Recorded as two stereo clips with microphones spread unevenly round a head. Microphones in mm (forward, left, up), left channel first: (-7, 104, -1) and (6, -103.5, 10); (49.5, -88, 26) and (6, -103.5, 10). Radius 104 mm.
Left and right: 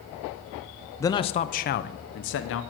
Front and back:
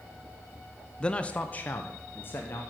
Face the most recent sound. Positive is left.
turn(degrees=65)